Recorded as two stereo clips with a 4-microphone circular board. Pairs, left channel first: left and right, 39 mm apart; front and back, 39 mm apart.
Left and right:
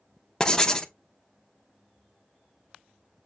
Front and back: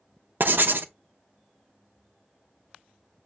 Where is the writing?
155° left, 0.5 m.